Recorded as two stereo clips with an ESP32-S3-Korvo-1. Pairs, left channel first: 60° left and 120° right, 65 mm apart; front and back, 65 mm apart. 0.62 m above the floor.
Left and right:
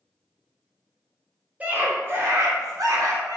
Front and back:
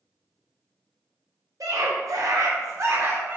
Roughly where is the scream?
Behind.